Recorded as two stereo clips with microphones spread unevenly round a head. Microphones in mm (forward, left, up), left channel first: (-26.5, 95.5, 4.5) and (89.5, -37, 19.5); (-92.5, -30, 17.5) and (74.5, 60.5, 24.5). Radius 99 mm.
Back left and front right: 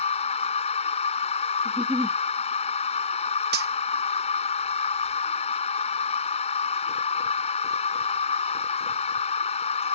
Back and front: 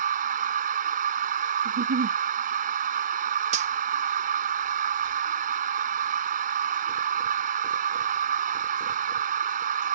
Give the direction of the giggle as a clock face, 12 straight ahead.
11 o'clock.